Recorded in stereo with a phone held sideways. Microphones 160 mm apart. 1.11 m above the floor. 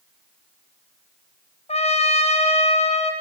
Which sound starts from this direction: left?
A trumpet, at 1.7 s.